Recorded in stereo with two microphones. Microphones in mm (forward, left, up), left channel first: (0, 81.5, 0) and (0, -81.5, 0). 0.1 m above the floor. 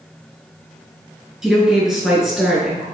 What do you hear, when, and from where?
1.4 s a woman speaking: 5° right (ahead or behind), 1.7 m